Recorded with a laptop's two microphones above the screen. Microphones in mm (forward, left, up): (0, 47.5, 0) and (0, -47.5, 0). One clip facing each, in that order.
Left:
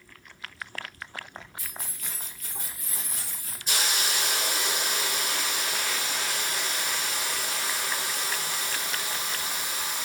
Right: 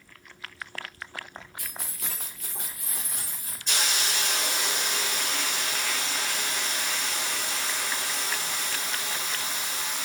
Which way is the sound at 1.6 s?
60° right (ahead or behind).